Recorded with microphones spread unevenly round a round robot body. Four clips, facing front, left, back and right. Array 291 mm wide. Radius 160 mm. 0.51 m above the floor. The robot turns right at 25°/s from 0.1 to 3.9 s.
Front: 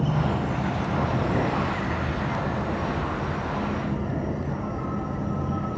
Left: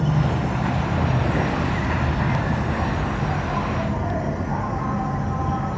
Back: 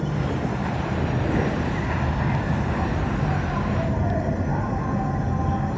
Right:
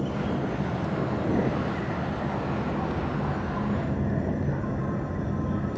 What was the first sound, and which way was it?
An insect, 70° left.